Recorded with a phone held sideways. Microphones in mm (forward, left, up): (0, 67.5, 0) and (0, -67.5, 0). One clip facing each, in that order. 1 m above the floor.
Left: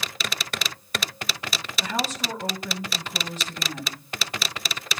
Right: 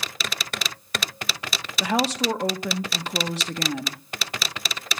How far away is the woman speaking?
About 1.4 m.